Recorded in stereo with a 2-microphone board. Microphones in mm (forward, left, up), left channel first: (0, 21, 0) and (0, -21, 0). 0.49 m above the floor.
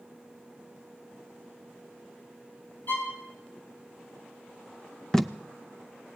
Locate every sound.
2.9 s a violin: 55° left (ahead or behind), 4.5 m
5.1 s tape being pulled: 10° left (ahead or behind), 0.6 m